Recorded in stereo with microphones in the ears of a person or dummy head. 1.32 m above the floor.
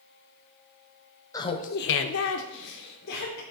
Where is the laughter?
15° left (ahead or behind), 0.6 m; by 3.4 s 50° left (ahead or behind), 1.3 m.